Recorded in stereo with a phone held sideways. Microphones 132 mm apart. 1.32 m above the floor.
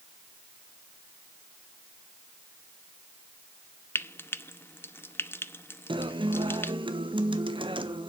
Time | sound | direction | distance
4.0 | frying | 15° left (ahead or behind) | 0.7 m
5.9 | a guitar | 40° right (ahead or behind) | 1.1 m